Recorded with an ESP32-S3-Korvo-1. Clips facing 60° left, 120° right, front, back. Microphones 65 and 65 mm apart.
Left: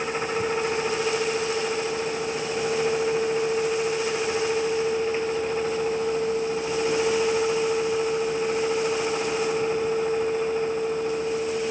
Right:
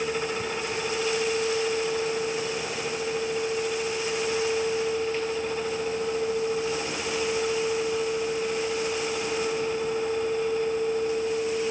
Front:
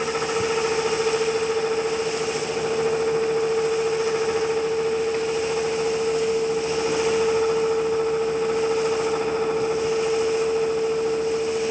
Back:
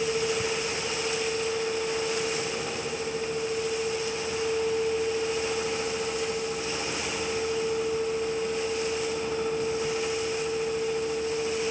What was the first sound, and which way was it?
Only background noise.